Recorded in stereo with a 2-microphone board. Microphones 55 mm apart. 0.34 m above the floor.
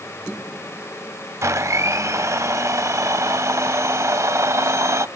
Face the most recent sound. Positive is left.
turn(degrees=-65)  # may be behind; listen again after turning